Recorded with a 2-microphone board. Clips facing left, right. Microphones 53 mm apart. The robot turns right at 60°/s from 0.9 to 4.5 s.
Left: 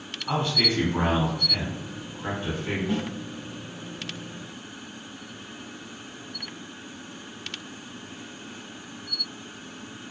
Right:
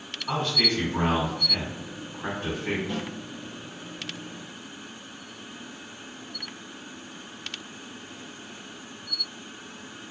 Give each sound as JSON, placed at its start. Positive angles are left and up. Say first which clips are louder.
{"t": 0.3, "sound": "a man speaking", "louder": "left 1 dB", "azimuth_deg": 160, "distance_m": 1.3}
{"t": 2.9, "sound": "a snare drum", "louder": "left 4 dB", "side_deg": 25, "distance_m": 1.1}